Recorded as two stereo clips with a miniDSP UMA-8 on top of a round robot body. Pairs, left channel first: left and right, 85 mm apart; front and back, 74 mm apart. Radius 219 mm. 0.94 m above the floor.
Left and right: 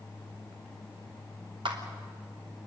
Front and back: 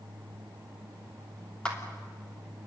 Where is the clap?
80° right, 3 m.